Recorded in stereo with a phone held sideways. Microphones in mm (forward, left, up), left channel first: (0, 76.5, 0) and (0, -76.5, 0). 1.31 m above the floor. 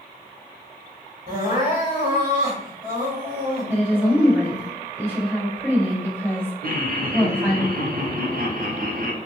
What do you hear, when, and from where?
1.3 s crying: 55° right (ahead or behind), 1.1 m
3.7 s a woman speaking: 15° right (ahead or behind), 1.7 m
6.6 s laughter: 60° right (ahead or behind), 0.6 m